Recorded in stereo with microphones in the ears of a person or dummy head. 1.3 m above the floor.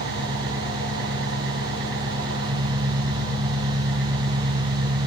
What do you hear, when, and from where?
0.0 s an engine running: 70° right (ahead or behind), 2.5 m